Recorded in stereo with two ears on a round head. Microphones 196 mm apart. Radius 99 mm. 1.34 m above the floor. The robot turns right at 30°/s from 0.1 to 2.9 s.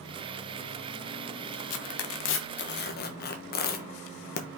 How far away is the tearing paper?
About 1.3 m.